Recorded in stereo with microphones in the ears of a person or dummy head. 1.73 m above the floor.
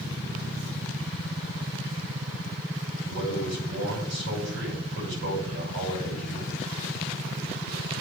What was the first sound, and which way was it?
A man speaking, 60° right (ahead or behind).